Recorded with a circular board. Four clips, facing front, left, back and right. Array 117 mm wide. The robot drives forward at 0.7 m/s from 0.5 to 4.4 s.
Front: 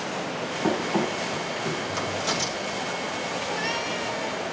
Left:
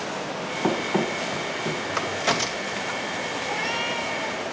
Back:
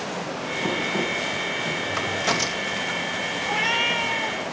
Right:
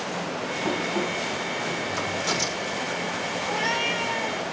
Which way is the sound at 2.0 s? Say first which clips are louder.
Left 2 dB, back 3 dB; 115° left.